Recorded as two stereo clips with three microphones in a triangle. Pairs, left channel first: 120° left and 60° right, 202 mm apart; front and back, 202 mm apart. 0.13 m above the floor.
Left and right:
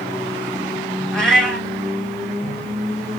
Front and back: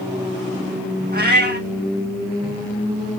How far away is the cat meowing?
About 1.4 m.